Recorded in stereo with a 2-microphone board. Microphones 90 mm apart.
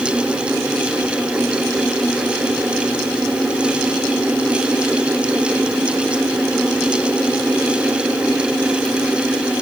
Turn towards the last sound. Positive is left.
No sound to turn to.